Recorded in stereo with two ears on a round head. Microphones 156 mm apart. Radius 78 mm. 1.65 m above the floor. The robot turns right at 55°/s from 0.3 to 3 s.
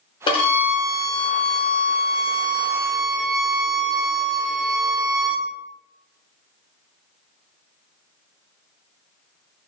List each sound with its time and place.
0.3 s a violin: 35° left, 0.9 m; by 5.5 s 175° right, 0.9 m